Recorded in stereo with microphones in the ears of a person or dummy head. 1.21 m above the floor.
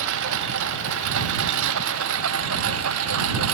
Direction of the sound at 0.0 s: 70° right (ahead or behind).